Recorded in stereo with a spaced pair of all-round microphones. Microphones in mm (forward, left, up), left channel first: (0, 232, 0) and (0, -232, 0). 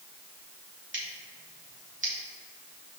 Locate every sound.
0.9 s scissors: 25° right (ahead or behind), 2.0 m